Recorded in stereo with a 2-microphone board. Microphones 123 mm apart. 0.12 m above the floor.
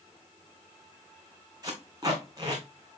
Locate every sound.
1.6 s tape being pulled: 30° right (ahead or behind), 2.5 m